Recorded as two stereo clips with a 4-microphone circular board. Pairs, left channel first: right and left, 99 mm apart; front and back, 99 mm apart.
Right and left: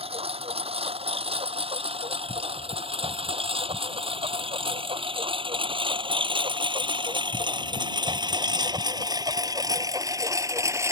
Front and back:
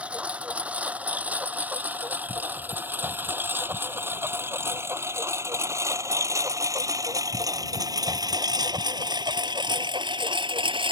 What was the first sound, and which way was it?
A lawn mower, 105° left.